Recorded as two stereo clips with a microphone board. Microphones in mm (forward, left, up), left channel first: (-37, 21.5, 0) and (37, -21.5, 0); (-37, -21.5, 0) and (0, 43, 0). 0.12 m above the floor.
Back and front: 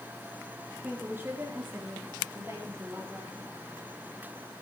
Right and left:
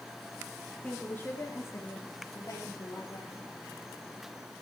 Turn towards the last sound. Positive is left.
turn(degrees=-90)